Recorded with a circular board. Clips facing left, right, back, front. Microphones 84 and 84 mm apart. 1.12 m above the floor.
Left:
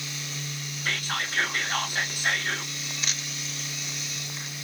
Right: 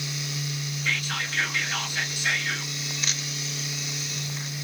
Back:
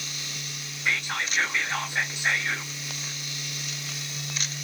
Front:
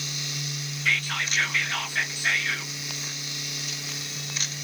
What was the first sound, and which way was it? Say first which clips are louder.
Whispering: even, even; 115° left.